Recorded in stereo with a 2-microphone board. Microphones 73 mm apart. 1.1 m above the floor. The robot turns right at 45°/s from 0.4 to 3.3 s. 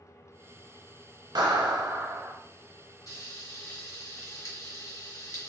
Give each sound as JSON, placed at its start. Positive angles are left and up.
{"t": 1.4, "sound": "a clap", "azimuth_deg": -80, "distance_m": 0.7}
{"t": 3.1, "sound": "frying", "side_deg": 50, "distance_m": 1.4}